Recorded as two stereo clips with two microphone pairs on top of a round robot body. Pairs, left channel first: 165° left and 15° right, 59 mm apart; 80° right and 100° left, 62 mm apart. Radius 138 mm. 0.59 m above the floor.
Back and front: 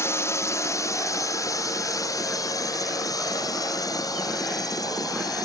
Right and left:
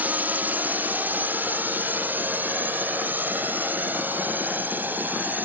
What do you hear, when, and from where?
0.0 s a drone: 150° left; by 5.5 s 160° left